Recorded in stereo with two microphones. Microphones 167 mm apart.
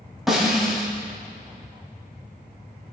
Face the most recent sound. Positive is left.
turn(degrees=0)  # may be behind; listen again after turning